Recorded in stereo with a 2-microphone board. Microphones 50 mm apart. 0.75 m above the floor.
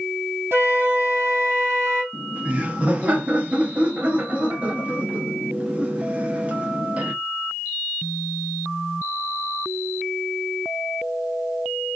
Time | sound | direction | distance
0.5 | a flute | 55° right (ahead or behind) | 1.8 m
2.1 | laughter | 25° right (ahead or behind) | 0.7 m